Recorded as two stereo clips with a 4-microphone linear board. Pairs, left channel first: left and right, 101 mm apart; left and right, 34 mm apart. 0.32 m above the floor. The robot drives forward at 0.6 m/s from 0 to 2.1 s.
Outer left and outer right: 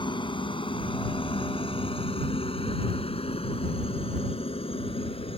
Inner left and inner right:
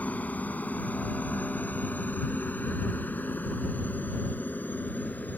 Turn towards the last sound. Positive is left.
turn(degrees=70)  # may be behind; listen again after turning